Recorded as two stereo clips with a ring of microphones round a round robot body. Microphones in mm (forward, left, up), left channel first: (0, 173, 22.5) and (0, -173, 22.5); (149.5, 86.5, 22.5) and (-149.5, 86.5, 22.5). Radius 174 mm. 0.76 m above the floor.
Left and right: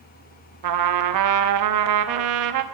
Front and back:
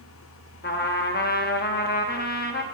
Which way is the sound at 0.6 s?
60° right.